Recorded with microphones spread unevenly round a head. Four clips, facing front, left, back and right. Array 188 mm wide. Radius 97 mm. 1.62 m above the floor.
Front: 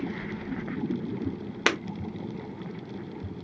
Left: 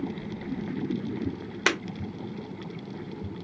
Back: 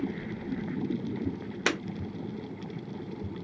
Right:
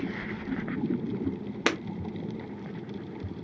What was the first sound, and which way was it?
Breaking glass, straight ahead.